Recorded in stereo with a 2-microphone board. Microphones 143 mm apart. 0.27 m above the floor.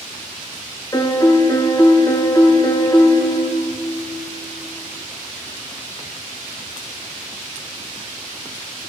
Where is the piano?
25° left (ahead or behind), 1.2 m.